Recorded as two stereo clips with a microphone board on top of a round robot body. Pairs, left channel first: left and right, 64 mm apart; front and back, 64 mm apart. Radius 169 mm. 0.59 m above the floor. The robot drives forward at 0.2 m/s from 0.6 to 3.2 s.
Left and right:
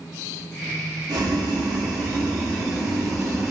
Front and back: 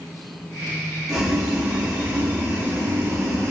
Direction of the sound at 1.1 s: 95° right.